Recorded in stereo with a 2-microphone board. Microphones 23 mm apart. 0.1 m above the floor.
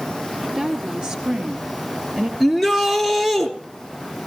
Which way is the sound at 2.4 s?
Centre (ahead or behind).